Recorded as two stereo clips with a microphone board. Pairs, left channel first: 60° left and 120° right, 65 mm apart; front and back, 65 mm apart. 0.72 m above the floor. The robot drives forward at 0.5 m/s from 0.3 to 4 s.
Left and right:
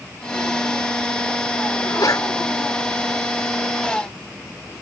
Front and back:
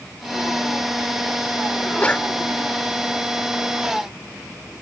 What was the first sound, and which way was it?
A sneeze, 65° left.